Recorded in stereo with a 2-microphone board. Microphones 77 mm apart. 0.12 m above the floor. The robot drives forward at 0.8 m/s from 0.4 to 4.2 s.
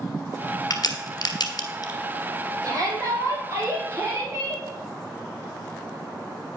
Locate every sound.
0.7 s a crack: 55° left (ahead or behind), 1.2 m; by 1.9 s 50° left (ahead or behind), 1.3 m
2.6 s a shout: 50° right (ahead or behind), 4.5 m; by 4.6 s 40° right (ahead or behind), 5.5 m